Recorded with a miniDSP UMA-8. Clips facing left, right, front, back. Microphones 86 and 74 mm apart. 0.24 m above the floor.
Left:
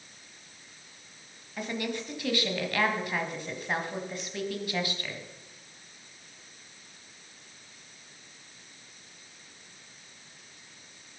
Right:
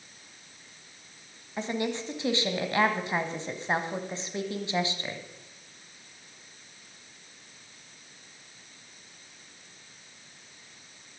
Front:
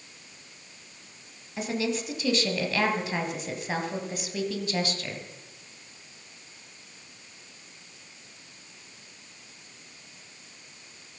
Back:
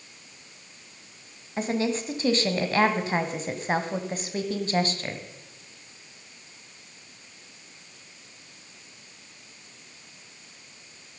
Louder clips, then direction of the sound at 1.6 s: Right 3 dB, back 3 dB; 145° right.